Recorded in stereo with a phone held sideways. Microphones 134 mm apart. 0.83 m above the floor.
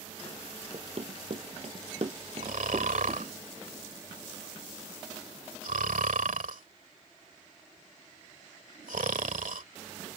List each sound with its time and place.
0.7 s running footsteps: 50° right (ahead or behind); by 3.3 s 30° right (ahead or behind)
2.4 s snoring: 85° right